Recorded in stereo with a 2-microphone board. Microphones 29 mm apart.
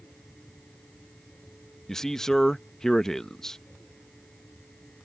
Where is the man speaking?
20° left (ahead or behind).